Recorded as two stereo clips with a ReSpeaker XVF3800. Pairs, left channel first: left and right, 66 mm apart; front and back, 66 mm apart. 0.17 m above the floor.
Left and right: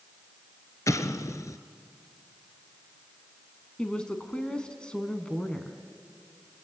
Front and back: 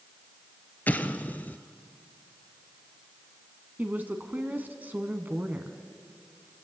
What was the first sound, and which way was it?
An explosion, 60° left.